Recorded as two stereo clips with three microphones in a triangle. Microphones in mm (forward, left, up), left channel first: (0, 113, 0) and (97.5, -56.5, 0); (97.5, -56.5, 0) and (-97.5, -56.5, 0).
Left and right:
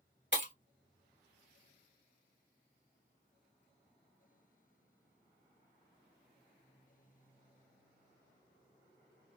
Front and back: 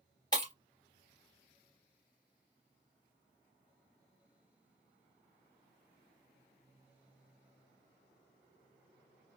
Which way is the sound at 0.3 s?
70° right.